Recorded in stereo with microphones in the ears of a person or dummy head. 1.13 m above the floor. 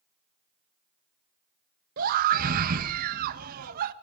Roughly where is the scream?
Right.